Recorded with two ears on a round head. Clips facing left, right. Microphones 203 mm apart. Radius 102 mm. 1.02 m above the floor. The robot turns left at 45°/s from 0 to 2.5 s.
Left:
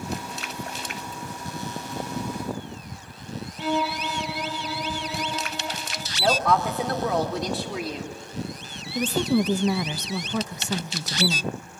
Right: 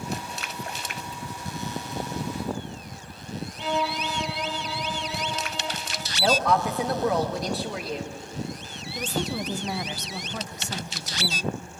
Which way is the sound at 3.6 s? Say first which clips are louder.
Left 2 dB; 5° left (ahead or behind).